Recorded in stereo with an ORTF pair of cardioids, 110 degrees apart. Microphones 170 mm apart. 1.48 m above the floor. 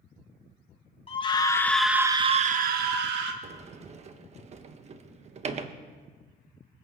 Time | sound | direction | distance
1.1 | a scream | 30° left | 1.9 m
3.4 | a sliding door | 40° right | 1.2 m